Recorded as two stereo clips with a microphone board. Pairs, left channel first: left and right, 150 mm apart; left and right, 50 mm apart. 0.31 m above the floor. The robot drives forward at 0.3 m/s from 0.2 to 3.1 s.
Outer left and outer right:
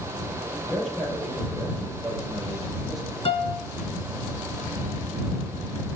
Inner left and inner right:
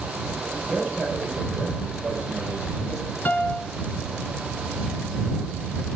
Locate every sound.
0.7 s a man speaking: centre (ahead or behind), 6.5 m
3.2 s a piano: 35° left (ahead or behind), 0.7 m